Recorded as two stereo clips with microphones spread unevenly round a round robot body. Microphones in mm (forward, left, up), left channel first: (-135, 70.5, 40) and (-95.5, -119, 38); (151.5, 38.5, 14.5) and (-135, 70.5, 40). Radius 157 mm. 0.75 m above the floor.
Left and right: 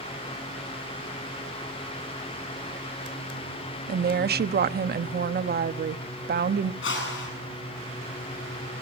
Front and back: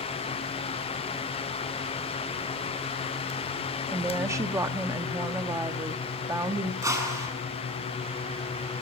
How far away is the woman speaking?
About 0.8 m.